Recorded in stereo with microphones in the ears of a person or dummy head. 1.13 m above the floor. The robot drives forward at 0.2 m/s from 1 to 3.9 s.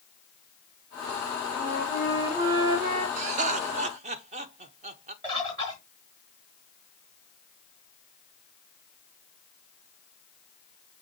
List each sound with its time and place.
1.6 s a flute: 30° right (ahead or behind), 1.4 m; by 3.1 s 25° right (ahead or behind), 1.7 m
3.2 s laughter: 35° right (ahead or behind), 0.5 m
5.2 s a bird: 20° right (ahead or behind), 0.9 m